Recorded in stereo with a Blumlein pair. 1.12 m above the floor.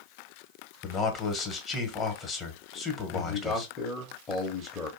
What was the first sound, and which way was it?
A man speaking, 25° left.